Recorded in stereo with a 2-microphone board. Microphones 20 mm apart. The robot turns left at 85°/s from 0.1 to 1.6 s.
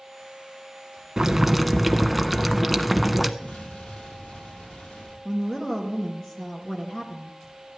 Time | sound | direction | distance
1.2 | boiling | 140° right | 0.5 m
3.4 | an explosion | 75° left (ahead or behind) | 4 m
5.2 | a woman speaking | 30° left (ahead or behind) | 2 m